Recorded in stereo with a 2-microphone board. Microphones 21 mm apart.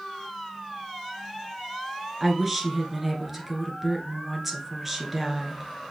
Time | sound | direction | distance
2.2 | a woman speaking | 5° right (ahead or behind) | 1.4 m